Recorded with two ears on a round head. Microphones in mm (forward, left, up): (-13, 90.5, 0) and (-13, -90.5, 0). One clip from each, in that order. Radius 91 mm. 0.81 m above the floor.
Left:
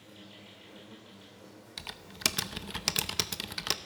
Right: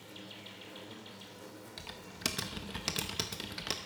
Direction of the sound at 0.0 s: 40° right (ahead or behind).